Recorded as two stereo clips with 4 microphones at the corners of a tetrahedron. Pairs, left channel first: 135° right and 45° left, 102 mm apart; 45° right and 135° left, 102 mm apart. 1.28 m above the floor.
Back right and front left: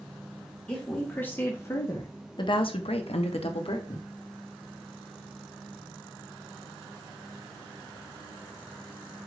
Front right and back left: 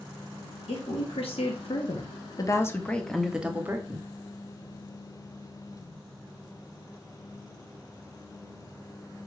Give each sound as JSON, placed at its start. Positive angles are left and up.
{"t": 0.7, "sound": "a woman speaking", "azimuth_deg": -55, "distance_m": 1.2}